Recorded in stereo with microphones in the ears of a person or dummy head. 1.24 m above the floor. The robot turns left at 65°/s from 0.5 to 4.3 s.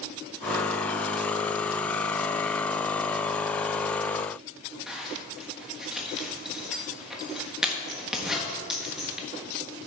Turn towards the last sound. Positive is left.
turn(degrees=-5)  # may be behind; listen again after turning